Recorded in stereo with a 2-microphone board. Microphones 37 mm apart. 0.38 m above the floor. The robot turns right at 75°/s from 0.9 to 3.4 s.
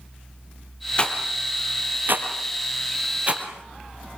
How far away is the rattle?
About 2.5 m.